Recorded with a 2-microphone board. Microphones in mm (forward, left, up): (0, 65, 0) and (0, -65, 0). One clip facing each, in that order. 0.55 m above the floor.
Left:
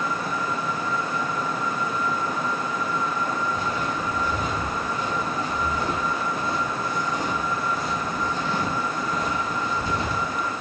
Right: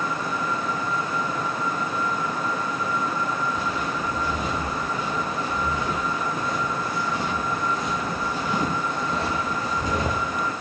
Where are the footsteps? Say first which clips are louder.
Even; 50° left (ahead or behind), 3 m; by 10.5 s 50° right (ahead or behind), 1.8 m.